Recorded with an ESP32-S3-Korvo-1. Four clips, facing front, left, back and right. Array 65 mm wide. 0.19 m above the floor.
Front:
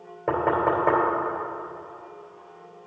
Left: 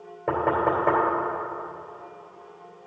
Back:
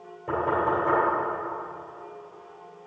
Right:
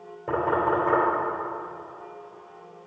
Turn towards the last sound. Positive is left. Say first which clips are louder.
# left 1 dB, front 2 dB
turn(degrees=30)